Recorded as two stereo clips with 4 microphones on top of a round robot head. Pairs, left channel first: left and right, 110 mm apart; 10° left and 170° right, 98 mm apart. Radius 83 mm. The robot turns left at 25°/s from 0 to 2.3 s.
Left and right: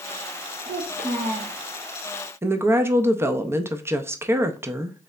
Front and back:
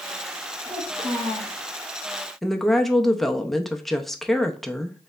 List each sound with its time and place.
0.7 s a child speaking: 85° right, 2.5 m; by 1.6 s 110° right, 2.5 m
2.4 s a woman speaking: 75° right, 0.5 m